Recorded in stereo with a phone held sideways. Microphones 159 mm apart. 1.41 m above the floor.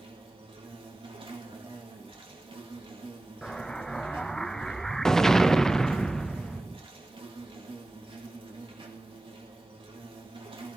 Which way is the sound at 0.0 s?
35° right (ahead or behind).